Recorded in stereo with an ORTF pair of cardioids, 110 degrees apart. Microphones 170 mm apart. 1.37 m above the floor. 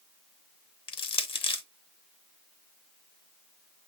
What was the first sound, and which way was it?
Crushing, 30° left.